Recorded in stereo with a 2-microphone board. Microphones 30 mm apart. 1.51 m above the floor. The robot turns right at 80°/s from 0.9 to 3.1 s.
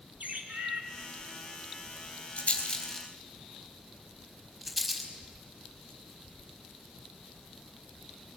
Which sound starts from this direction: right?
A bird, at 0.2 s.